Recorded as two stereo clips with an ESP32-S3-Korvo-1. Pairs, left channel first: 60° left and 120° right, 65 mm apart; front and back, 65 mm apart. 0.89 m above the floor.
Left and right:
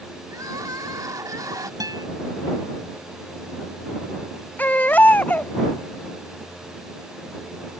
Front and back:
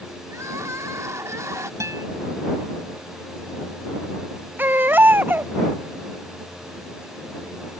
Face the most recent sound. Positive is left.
turn(degrees=125)